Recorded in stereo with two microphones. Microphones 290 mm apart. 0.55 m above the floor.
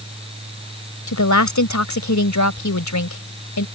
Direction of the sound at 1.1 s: 75° left (ahead or behind).